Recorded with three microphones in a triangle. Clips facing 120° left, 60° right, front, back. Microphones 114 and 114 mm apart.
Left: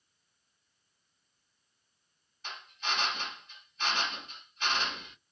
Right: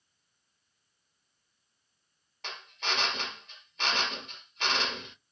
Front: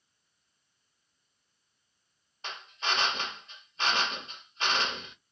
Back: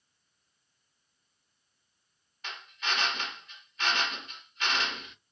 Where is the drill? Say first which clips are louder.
Right 1 dB, front 2 dB; 60° right, 1.0 m.